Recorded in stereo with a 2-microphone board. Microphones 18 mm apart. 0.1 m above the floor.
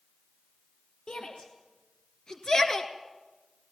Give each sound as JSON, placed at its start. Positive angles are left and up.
{"t": 1.1, "sound": "a shout", "side_deg": 55, "distance_m": 2.5}